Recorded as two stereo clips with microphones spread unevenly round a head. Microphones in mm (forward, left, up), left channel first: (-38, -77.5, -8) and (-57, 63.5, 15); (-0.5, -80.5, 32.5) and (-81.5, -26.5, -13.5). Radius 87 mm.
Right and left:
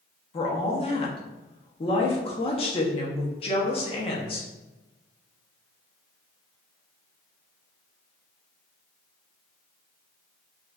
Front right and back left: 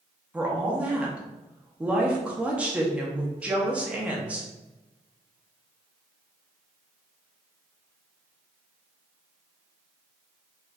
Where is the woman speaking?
95° right, 0.6 m.